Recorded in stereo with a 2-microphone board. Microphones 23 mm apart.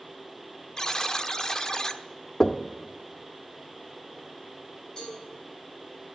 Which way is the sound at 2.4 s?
20° left (ahead or behind).